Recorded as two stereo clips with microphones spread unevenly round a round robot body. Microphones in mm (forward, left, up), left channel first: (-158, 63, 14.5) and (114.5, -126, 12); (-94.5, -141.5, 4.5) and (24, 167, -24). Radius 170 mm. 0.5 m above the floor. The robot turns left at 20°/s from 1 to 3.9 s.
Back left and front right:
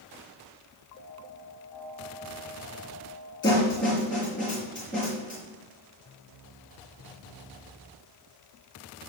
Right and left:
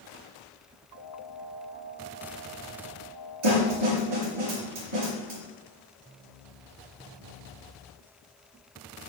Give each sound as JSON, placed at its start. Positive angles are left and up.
{"t": 3.4, "sound": "a snare drum", "azimuth_deg": 70, "distance_m": 4.5}